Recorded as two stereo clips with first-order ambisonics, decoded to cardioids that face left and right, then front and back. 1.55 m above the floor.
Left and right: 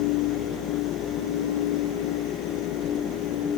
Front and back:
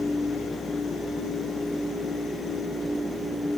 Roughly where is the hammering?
I don't hear hammering.